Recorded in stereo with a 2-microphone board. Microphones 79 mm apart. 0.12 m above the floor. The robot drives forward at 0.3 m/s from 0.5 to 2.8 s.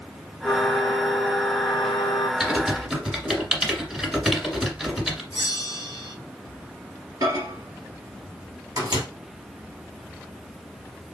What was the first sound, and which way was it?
A flute, 55° left (ahead or behind).